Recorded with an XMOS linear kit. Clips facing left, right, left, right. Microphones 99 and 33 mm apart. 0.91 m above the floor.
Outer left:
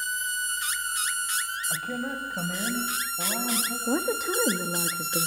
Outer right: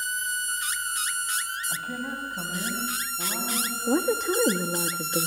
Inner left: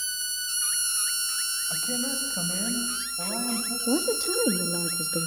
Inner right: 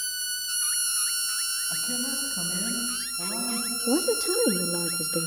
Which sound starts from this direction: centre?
A woman speaking, at 3.9 s.